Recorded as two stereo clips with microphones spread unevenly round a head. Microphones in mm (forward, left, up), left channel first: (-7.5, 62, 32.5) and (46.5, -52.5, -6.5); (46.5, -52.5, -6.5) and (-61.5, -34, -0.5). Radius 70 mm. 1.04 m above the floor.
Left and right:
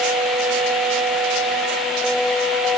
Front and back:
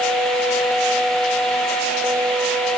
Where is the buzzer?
No buzzer in this recording.